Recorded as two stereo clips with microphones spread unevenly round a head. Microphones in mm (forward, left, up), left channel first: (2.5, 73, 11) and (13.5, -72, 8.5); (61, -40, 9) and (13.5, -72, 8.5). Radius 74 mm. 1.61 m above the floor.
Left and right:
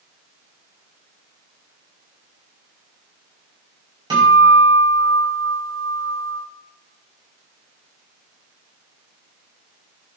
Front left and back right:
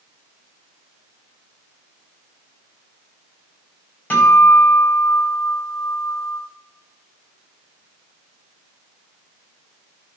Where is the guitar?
25° right, 6 m.